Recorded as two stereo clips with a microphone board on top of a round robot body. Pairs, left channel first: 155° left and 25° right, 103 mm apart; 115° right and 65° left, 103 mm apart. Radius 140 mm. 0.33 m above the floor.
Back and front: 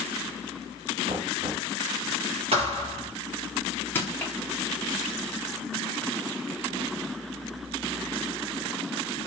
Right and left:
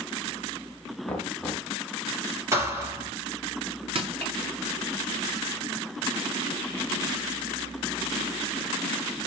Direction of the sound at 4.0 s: 85° left.